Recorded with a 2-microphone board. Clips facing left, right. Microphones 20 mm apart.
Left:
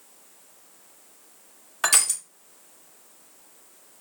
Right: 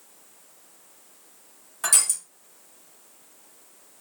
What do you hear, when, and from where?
1.8 s crushing: 35° left (ahead or behind), 0.9 m